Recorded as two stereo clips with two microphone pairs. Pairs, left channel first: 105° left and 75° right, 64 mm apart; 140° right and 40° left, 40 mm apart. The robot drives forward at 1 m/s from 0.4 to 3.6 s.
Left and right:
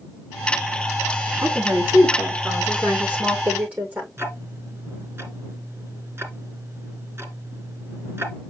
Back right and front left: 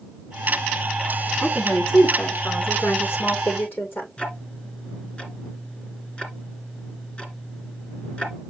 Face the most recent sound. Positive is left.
turn(degrees=-100)